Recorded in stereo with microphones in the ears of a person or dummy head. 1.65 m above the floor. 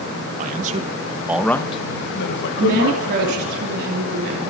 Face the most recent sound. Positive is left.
turn(degrees=-65)  # may be behind; listen again after turning